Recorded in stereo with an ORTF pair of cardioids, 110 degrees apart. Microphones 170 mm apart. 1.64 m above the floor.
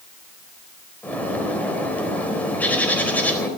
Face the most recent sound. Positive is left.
turn(degrees=10)